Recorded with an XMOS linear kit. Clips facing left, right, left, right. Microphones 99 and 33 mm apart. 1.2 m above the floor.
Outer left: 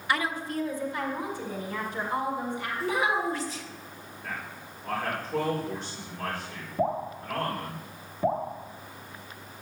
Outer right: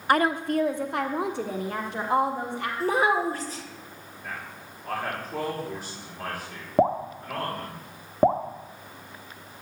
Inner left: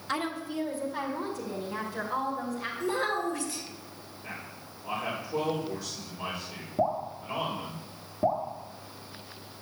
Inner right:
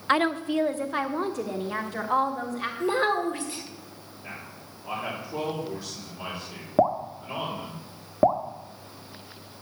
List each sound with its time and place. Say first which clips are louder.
0.1 s a woman speaking: outer right 7 dB, inner right 9 dB; 50° right (ahead or behind), 0.6 m; by 2.7 s 80° right, 2 m
2.8 s a child speaking: outer right 4 dB, inner right 5 dB; 45° right (ahead or behind), 1.8 m
4.2 s a man speaking: even, inner right 1 dB; 10° right (ahead or behind), 3.5 m
6.8 s dripping: outer right 6 dB, inner right 6 dB; 75° right (ahead or behind), 1.1 m